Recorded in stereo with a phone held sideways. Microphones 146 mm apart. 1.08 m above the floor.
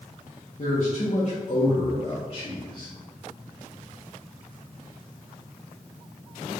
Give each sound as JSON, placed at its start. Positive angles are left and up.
{"t": 0.6, "sound": "a man speaking", "side_deg": 60, "distance_m": 1.5}